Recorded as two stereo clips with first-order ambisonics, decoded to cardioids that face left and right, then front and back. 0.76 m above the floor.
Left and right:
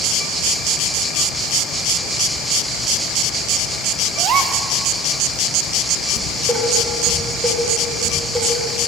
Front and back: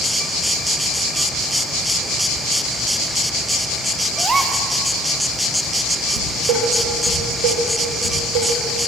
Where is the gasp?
110° right, 0.6 m.